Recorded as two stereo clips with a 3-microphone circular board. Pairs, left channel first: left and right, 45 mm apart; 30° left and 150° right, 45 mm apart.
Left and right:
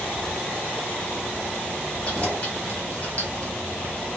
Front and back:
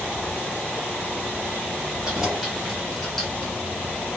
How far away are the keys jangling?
About 1.2 m.